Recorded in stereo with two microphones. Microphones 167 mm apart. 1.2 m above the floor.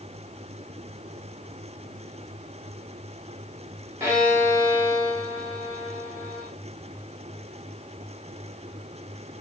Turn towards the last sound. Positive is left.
turn(degrees=-15)  # may be behind; listen again after turning